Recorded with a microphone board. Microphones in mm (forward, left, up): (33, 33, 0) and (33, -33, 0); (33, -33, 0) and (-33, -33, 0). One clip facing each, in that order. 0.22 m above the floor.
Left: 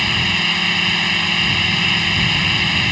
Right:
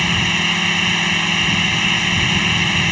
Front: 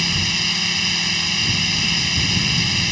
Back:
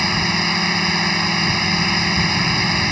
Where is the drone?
175° right.